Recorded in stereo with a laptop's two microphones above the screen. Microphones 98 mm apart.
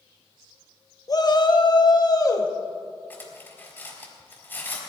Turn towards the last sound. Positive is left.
turn(degrees=20)  # may be behind; listen again after turning